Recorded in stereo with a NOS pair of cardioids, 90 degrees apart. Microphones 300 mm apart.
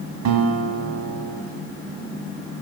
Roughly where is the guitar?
Ahead right.